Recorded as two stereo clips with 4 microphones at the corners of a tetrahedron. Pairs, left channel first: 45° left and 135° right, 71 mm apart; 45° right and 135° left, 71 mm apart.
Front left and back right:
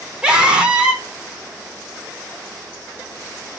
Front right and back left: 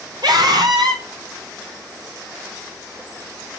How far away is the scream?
About 4 m.